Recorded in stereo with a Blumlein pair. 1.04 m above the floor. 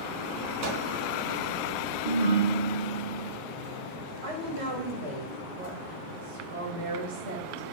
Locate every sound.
0.6 s a microwave: 45° right, 1.1 m
2.0 s a ringtone: 70° right, 1.3 m
4.2 s a woman speaking: 65° right, 1.3 m